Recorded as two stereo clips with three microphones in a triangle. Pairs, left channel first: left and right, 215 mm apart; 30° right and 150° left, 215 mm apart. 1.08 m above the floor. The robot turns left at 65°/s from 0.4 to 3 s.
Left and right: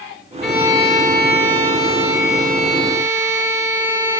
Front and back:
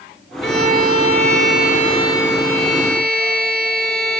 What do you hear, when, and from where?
0.4 s a violin: straight ahead, 4.5 m; by 4.2 s 170° right, 4.5 m